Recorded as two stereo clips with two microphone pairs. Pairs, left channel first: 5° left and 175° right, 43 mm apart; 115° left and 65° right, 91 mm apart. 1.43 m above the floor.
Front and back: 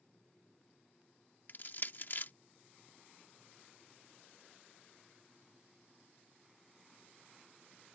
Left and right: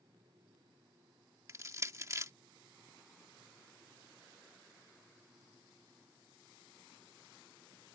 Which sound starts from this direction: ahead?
Crushing, at 1.5 s.